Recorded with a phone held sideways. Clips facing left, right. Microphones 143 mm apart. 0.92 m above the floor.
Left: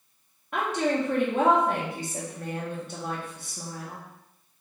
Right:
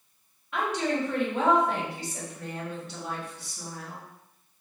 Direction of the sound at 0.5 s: 55° left (ahead or behind).